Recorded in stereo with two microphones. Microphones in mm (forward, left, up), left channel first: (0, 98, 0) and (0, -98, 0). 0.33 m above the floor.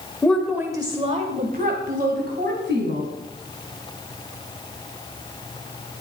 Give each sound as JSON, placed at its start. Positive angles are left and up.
{"t": 0.2, "sound": "a woman speaking", "side_deg": 10, "distance_m": 1.1}